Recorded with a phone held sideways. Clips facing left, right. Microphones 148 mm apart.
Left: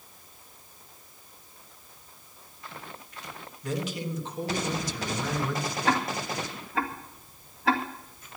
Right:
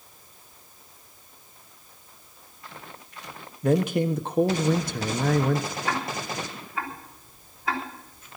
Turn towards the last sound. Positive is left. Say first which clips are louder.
# left 2 dB
turn(degrees=80)